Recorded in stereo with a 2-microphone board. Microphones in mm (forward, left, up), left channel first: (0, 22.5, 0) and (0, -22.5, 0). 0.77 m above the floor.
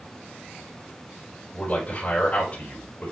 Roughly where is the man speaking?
Left.